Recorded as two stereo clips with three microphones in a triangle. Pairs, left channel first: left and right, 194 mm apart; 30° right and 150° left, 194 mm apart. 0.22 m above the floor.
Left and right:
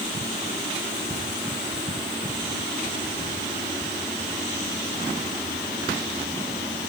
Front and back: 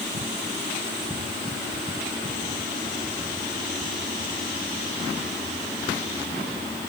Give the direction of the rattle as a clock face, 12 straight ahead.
I don't hear a rattle.